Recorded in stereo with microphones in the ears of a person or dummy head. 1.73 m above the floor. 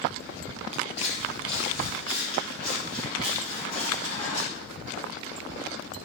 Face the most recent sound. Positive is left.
turn(degrees=50)  # may be behind; listen again after turning